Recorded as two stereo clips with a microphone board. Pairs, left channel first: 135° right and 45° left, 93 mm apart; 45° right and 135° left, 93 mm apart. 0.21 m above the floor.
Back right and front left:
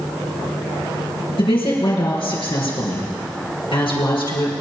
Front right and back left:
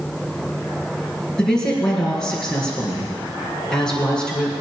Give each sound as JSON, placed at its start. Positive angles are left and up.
{"t": 1.4, "sound": "a woman speaking", "azimuth_deg": -125, "distance_m": 4.5}